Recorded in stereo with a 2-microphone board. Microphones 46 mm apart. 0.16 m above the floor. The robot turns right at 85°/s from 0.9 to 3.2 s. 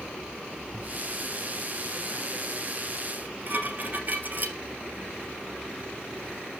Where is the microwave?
55° right (ahead or behind), 2 m.